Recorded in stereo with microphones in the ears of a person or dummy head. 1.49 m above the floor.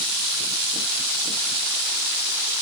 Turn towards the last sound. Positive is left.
No sound to turn to.